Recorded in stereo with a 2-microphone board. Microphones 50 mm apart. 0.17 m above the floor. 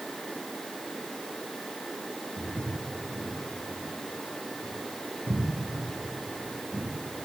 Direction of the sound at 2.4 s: 70° right (ahead or behind).